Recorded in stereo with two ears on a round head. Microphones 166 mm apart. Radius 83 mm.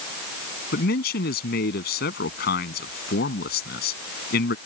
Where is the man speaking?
55° left (ahead or behind).